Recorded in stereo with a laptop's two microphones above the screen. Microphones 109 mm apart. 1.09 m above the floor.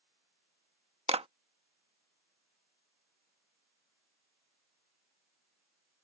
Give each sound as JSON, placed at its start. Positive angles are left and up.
{"t": 1.1, "sound": "a clap", "side_deg": -70}